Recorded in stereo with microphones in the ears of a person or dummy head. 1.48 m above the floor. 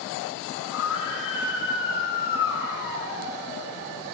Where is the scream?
70° left (ahead or behind), 6 m.